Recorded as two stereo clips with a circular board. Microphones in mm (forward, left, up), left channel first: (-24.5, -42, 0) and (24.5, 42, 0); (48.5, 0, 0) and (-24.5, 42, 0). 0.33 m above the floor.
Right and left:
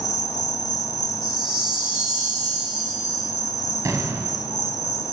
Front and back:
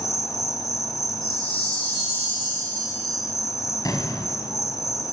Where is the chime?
20° right, 7 m.